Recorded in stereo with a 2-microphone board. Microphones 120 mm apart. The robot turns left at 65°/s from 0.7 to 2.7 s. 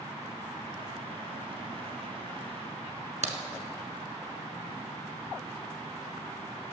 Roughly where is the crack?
Right.